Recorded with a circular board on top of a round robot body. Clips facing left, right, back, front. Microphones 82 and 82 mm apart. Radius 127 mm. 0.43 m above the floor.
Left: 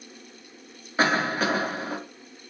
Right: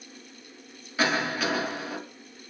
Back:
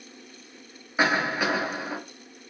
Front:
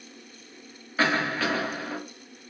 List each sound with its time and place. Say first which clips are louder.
1.0 s a cough: left 3 dB, back 1 dB; 115° left, 1.0 m